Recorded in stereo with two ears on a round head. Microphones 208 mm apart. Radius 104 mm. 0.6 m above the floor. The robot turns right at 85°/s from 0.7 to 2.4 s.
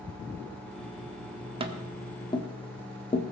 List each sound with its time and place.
1.6 s tapping: 25° right (ahead or behind), 1.2 m; by 3.2 s 25° left (ahead or behind), 1.2 m